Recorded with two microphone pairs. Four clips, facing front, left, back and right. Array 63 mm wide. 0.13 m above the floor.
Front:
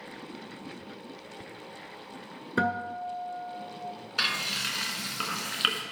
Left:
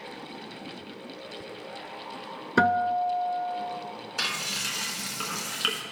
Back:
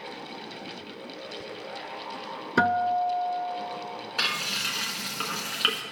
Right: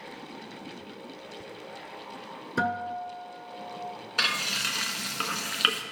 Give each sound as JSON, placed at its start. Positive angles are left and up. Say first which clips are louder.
{"t": 2.6, "sound": "a guitar", "louder": "left 7 dB, back 6 dB", "azimuth_deg": 110, "distance_m": 0.7}
{"t": 4.2, "sound": "frying", "louder": "right 4 dB, back 1 dB", "azimuth_deg": -85, "distance_m": 1.0}